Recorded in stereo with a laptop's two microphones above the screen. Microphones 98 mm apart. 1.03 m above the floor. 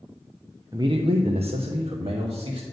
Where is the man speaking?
35° right (ahead or behind), 0.8 m; by 2.6 s 55° right (ahead or behind), 1.7 m.